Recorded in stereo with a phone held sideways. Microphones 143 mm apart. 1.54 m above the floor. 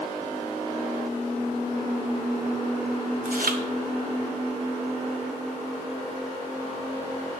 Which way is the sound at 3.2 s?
80° right.